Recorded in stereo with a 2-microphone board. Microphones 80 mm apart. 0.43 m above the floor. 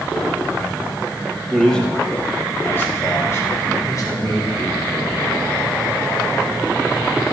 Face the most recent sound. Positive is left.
turn(degrees=60)  # may be behind; listen again after turning